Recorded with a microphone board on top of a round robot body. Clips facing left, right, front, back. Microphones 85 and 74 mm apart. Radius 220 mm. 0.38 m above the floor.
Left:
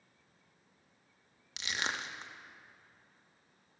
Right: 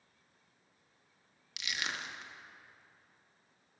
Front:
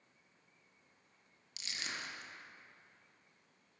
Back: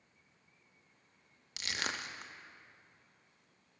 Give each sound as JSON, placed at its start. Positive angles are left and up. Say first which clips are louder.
{"t": 1.6, "sound": "crushing", "louder": "left 2 dB, back 6 dB", "azimuth_deg": 150, "distance_m": 0.7}